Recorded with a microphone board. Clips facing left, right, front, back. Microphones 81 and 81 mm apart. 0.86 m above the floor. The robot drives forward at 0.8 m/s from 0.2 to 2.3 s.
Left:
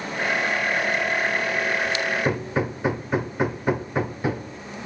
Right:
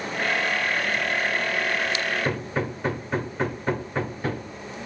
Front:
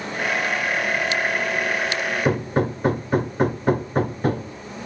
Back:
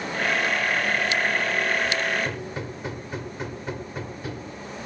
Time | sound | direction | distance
2.2 | hammering | 10° left | 0.7 m